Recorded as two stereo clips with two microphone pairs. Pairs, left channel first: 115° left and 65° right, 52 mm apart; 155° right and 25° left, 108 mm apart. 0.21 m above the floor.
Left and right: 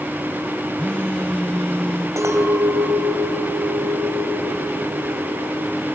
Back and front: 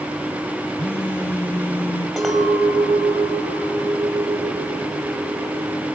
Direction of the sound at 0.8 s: 165° left.